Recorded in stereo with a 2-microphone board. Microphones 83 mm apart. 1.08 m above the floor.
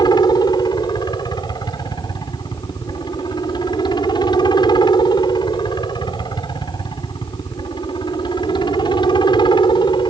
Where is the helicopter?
55° left (ahead or behind); by 10.1 s 60° left (ahead or behind).